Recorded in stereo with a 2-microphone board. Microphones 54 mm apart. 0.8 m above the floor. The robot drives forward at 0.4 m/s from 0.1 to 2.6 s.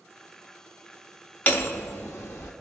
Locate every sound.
1.5 s hammering: 35° left (ahead or behind), 0.9 m; by 2.5 s 50° left (ahead or behind), 0.6 m